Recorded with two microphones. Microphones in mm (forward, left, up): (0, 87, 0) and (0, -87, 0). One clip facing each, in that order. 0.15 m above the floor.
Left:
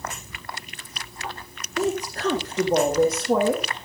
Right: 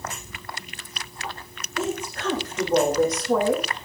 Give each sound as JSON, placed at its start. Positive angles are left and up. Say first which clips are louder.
{"t": 1.8, "sound": "a woman speaking", "louder": "left 3 dB", "side_deg": 40, "distance_m": 6.5}